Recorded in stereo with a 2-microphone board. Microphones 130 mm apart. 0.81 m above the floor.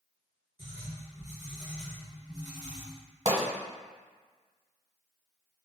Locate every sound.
0.6 s writing: 30° left (ahead or behind), 1.3 m
3.2 s a pop: 55° right (ahead or behind), 1.0 m